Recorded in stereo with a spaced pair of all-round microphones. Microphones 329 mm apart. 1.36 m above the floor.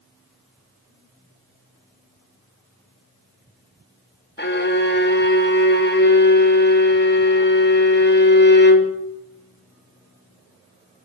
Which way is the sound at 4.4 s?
35° left (ahead or behind).